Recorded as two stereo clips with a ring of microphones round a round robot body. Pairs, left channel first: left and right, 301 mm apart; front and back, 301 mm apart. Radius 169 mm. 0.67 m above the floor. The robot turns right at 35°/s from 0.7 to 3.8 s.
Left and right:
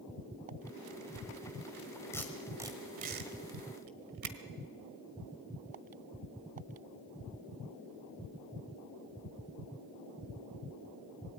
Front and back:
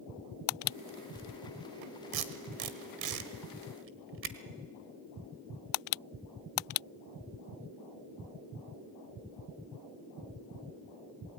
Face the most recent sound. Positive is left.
turn(degrees=-130)